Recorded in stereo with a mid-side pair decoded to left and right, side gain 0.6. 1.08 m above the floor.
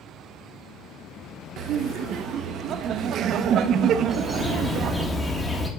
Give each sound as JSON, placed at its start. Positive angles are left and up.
{"t": 1.6, "sound": "laughter", "azimuth_deg": -55, "distance_m": 0.6}
{"t": 4.1, "sound": "a bird", "azimuth_deg": 15, "distance_m": 1.1}